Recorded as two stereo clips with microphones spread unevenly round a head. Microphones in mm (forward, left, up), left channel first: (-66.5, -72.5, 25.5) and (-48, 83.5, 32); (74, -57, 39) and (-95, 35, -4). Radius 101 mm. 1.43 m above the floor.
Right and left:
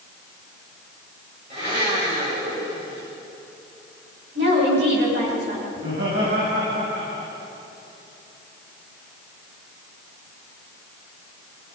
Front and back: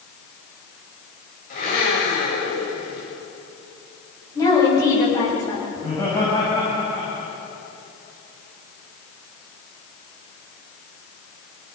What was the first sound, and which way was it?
A blender, 20° left.